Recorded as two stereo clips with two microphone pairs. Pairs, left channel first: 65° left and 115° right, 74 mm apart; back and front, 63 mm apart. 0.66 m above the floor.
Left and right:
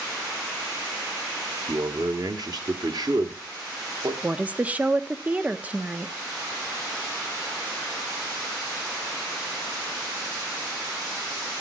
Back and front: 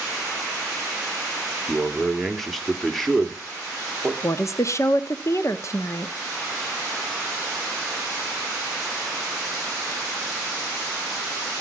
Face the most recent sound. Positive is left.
turn(degrees=180)